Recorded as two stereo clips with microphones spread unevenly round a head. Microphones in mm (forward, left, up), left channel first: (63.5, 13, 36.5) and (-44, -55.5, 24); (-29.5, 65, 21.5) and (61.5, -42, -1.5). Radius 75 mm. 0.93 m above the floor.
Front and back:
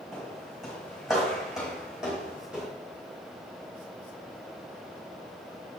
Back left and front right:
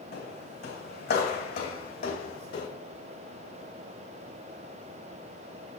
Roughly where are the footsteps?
Behind left.